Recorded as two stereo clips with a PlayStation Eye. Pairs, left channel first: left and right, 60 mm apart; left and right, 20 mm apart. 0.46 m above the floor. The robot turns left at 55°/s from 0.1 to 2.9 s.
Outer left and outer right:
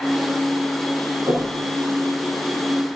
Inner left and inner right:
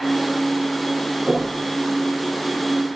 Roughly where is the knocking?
Right.